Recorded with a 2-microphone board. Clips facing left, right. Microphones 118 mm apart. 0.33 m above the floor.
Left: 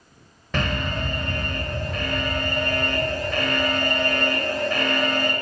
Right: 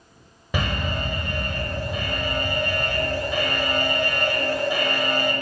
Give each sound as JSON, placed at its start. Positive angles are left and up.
{"t": 0.5, "sound": "an alarm", "side_deg": -10, "distance_m": 1.3}